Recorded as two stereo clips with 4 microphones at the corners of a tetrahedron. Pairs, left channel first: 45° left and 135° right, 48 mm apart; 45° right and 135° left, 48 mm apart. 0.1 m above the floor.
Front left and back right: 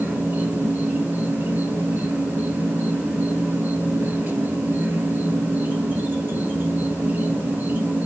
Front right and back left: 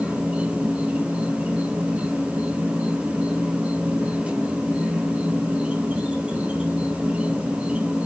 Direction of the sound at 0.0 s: 170° right.